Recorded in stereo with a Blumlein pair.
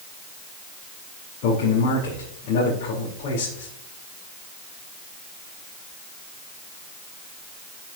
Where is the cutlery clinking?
I don't hear cutlery clinking.